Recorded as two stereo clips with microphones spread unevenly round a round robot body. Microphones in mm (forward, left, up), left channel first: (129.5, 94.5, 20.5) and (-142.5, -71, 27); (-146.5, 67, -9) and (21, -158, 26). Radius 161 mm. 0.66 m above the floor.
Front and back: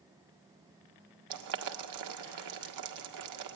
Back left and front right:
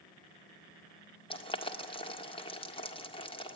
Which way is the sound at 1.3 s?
170° right.